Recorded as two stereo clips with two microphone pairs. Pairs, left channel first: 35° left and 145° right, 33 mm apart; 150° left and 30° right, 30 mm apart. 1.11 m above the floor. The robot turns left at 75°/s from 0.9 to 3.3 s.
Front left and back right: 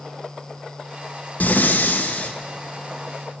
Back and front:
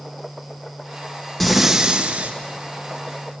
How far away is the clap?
No clap in this recording.